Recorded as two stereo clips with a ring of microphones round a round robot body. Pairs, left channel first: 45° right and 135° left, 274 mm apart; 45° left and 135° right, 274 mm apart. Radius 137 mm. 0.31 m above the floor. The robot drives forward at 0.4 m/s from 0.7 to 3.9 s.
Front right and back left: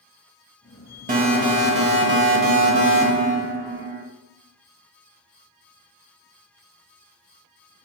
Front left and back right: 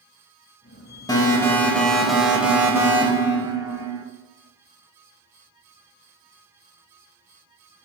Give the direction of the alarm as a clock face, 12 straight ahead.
8 o'clock.